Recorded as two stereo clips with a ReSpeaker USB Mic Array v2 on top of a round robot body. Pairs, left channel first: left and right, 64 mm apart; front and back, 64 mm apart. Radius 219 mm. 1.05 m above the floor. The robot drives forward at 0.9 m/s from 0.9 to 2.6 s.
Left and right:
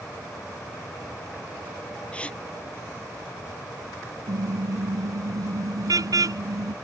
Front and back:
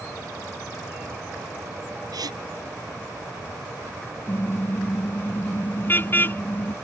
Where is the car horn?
60° right.